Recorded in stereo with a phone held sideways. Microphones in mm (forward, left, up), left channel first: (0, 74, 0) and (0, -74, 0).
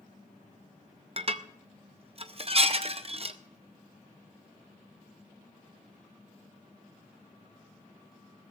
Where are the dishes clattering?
40° right (ahead or behind), 0.6 m.